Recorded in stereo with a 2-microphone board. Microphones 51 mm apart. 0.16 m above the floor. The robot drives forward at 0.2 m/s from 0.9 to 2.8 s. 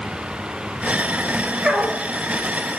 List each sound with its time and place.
1.6 s a dog barking: 10° right (ahead or behind), 1.2 m